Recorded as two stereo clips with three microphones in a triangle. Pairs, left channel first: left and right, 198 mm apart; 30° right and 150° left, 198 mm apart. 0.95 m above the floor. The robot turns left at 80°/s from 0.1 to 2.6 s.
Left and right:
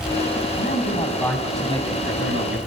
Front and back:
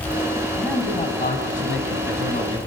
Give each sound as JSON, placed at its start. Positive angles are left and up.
{"t": 0.6, "sound": "a man speaking", "azimuth_deg": 65, "distance_m": 5.5}